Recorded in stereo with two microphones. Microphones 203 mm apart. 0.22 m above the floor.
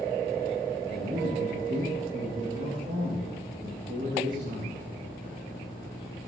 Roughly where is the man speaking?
Right.